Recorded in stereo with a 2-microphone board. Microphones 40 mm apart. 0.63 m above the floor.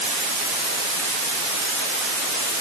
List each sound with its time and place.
Only background noise.